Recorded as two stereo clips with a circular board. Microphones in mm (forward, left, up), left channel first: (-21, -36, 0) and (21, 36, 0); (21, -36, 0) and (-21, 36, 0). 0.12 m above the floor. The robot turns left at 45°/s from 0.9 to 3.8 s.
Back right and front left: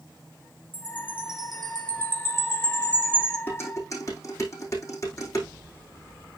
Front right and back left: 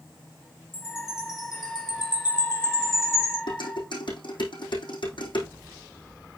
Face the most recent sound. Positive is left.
turn(degrees=-70)